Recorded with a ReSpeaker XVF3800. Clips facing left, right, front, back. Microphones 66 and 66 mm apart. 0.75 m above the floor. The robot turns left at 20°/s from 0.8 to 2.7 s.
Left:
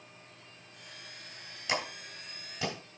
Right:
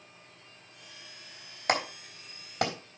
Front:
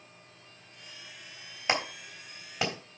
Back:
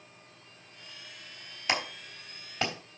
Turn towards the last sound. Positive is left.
turn(degrees=-85)